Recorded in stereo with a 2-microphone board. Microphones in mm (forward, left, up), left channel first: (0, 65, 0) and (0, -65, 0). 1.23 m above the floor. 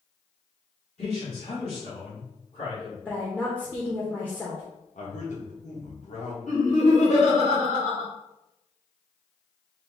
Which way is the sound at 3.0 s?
10° left (ahead or behind).